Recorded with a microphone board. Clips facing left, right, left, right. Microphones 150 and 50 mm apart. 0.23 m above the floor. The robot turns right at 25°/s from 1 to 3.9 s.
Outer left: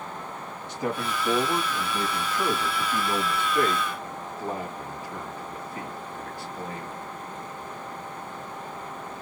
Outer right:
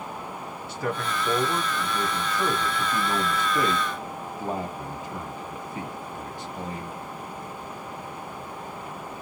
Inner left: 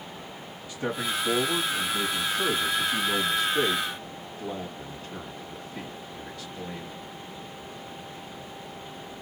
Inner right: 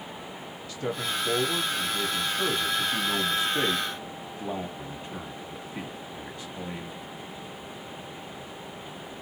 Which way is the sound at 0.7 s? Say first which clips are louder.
Even, inner left 1 dB; 150° left.